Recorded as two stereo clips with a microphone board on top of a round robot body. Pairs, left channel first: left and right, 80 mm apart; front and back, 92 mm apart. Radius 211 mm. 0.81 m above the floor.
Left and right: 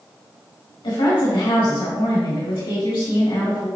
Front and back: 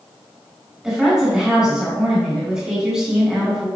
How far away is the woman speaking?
About 2 m.